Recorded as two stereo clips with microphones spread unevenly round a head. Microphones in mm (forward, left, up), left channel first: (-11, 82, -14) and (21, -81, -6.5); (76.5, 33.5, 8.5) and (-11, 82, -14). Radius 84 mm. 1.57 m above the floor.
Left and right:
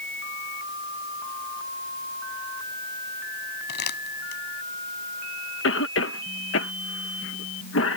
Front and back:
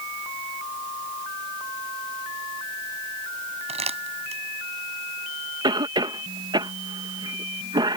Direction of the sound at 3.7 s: 135° left.